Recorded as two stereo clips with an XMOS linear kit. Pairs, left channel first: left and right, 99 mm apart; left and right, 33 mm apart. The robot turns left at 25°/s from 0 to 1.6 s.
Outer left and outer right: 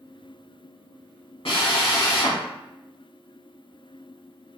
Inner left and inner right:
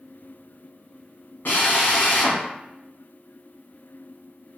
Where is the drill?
65° left (ahead or behind), 0.8 m.